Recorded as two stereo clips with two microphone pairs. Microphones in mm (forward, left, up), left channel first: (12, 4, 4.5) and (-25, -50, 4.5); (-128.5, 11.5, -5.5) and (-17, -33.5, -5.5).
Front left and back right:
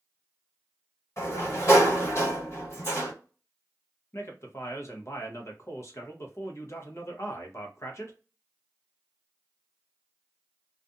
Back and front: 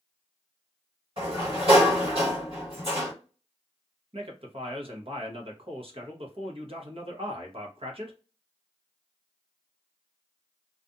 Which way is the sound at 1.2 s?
15° left.